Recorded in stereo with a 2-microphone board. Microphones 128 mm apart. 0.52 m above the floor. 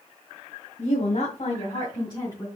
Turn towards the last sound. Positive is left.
turn(degrees=30)  # may be behind; listen again after turning